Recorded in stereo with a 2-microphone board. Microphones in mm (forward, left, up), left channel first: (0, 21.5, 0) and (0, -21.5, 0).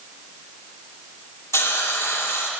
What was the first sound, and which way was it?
A hiss, 75° left (ahead or behind).